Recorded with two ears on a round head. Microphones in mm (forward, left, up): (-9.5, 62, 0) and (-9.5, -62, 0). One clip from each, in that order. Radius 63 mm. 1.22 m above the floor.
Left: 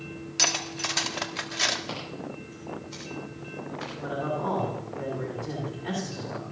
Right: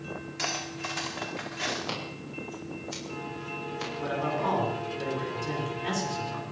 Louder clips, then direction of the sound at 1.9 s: Even; 35° right (ahead or behind).